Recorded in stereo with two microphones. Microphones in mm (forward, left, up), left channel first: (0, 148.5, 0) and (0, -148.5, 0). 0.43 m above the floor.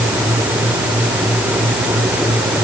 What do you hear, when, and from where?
Only background noise.